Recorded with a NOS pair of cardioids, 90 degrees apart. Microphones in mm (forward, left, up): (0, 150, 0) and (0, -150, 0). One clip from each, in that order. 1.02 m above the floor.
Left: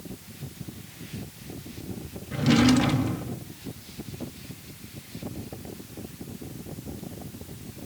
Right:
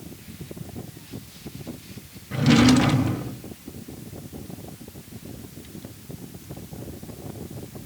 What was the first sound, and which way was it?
A drawer, 15° right.